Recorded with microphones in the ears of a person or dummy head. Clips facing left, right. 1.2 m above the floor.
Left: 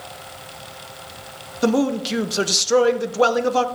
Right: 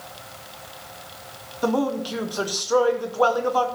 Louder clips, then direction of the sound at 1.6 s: Left 4 dB; 25° left (ahead or behind).